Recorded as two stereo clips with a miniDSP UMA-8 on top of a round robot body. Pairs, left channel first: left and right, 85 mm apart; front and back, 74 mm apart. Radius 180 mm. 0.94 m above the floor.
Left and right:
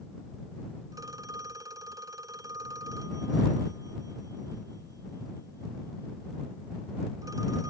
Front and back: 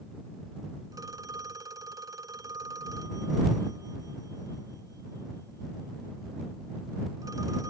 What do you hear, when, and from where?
0.9 s a phone ringing: 140° right